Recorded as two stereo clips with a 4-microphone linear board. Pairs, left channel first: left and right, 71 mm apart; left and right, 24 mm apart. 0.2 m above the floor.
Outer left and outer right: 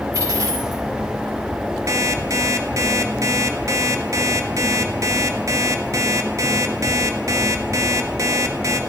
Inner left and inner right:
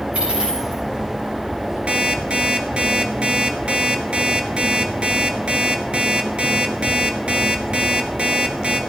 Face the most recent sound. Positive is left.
turn(degrees=-50)  # may be behind; listen again after turning